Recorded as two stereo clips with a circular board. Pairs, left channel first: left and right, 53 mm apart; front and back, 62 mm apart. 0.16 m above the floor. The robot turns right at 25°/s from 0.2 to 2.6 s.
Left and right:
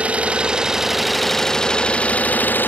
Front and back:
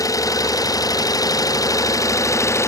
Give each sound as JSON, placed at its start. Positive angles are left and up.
{"t": 0.0, "sound": "an engine running", "azimuth_deg": -20}